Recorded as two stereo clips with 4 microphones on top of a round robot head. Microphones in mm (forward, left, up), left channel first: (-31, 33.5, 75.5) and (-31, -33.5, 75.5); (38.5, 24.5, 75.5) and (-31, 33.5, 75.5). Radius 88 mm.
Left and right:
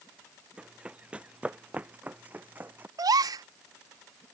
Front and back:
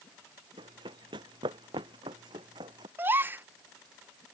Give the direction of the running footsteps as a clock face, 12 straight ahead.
5 o'clock.